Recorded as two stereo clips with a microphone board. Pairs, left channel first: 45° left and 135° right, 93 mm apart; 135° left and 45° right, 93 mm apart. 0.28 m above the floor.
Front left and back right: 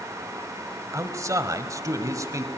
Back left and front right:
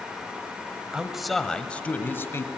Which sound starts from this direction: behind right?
A man speaking, at 0.9 s.